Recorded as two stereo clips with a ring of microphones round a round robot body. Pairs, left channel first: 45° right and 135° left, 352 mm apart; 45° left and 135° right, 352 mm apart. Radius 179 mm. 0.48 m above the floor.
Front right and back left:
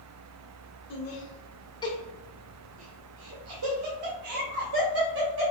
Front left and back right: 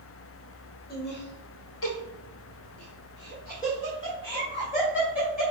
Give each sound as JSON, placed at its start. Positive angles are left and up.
{"t": 0.9, "sound": "laughter", "azimuth_deg": -15, "distance_m": 1.4}